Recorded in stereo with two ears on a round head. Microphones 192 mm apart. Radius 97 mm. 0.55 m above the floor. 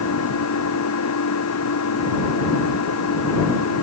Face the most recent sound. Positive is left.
turn(degrees=85)